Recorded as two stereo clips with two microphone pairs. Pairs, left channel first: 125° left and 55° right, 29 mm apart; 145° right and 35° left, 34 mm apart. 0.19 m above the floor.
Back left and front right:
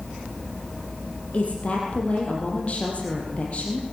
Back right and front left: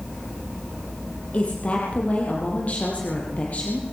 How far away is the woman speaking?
About 5.5 m.